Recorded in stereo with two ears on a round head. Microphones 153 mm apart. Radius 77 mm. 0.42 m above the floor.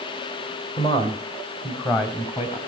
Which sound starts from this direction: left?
A man speaking, at 0.8 s.